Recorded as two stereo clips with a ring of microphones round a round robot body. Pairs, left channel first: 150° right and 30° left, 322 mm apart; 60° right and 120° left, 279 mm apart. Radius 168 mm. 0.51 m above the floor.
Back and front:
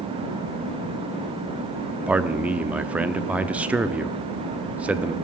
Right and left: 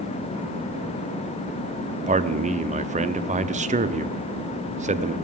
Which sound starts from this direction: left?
A man speaking, at 2.1 s.